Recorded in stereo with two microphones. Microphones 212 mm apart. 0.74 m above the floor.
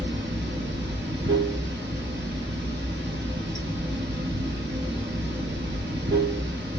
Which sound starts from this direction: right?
Running water, at 0.0 s.